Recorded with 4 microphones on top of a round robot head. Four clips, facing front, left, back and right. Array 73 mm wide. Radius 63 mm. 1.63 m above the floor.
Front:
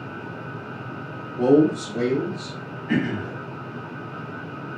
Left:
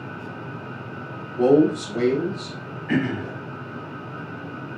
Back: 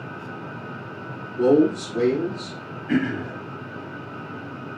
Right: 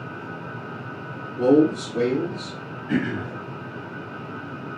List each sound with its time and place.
1.4 s a man speaking: 85° left, 2 m
2.9 s throat clearing: 95° left, 2.5 m